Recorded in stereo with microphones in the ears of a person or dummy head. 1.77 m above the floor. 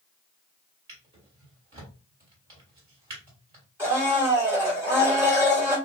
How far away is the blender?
About 1.7 m.